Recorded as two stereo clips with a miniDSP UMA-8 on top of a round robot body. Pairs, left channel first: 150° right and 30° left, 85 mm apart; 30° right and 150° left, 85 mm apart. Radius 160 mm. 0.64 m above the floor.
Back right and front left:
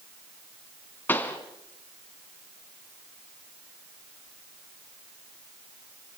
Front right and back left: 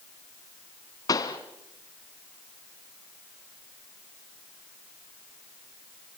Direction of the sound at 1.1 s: 80° right.